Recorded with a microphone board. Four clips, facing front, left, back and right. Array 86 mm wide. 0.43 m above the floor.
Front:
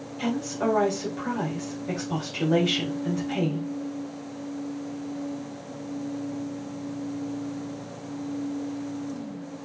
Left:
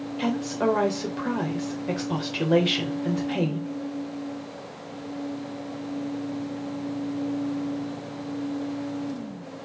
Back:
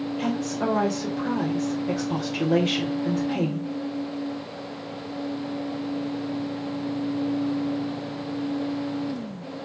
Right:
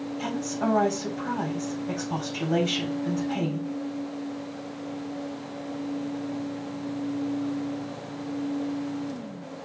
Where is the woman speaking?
100° left, 1.9 m.